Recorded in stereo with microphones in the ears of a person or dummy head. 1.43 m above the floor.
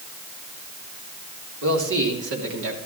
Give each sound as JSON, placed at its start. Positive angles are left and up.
{"t": 1.6, "sound": "a man speaking", "side_deg": -85, "distance_m": 3.5}